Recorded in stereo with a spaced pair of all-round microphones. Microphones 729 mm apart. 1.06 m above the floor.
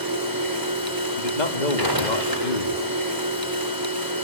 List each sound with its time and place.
0.0 s a machine running: 30° right (ahead or behind), 4.5 m
1.2 s a man speaking: 75° left (ahead or behind), 2 m